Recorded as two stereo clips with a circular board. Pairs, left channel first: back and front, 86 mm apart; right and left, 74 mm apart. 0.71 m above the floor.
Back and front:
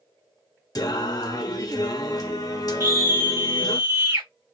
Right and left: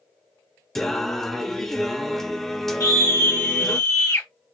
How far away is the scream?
About 1.9 m.